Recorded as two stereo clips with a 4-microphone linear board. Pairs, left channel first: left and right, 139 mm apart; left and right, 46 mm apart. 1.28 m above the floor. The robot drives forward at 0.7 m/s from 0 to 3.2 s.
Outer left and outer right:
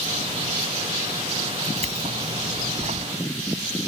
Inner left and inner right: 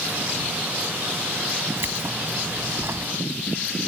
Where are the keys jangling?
50° right (ahead or behind); by 3.1 s 60° right (ahead or behind).